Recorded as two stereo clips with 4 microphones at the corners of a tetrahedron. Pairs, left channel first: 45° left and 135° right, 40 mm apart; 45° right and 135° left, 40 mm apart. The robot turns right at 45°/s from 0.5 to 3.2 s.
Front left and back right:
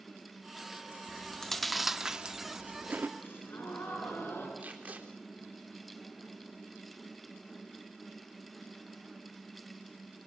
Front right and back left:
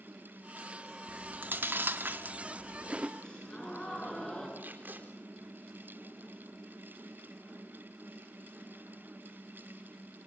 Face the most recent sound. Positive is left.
turn(degrees=175)